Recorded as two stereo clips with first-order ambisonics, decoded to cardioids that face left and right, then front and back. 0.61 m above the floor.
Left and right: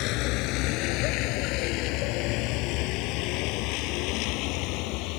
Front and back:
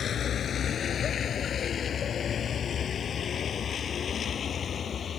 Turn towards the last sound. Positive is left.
turn(degrees=65)